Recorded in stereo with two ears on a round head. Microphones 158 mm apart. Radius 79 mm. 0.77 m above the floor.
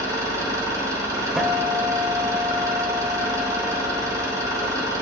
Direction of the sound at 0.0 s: 20° right (ahead or behind).